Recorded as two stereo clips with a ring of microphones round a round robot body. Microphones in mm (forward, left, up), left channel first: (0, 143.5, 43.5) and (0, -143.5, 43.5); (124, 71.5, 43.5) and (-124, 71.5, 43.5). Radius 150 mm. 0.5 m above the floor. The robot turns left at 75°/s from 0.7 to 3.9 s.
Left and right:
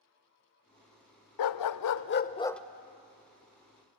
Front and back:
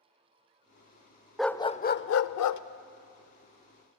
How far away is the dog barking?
About 0.7 m.